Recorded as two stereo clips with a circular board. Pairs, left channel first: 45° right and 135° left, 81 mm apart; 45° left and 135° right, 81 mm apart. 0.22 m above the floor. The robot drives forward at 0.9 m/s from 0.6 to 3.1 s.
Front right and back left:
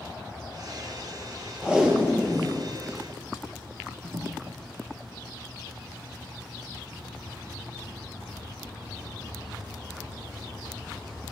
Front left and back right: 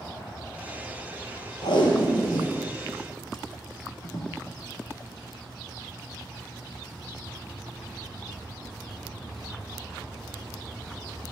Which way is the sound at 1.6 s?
55° left.